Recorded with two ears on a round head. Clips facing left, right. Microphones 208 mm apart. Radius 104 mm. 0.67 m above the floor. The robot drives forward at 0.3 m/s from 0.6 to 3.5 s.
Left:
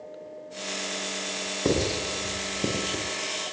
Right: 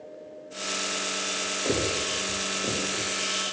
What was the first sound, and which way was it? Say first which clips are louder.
Writing: left 3 dB; 65° left (ahead or behind).